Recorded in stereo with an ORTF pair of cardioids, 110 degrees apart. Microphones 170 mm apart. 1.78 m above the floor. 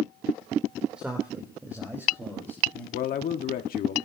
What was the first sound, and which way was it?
A man speaking, 5° right.